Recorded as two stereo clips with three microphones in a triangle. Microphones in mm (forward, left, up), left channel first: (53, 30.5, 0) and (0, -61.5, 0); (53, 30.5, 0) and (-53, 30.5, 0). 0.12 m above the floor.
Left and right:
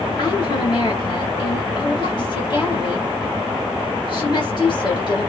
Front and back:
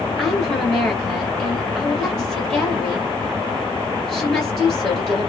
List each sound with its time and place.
0.2 s a woman speaking: 85° left, 2.5 m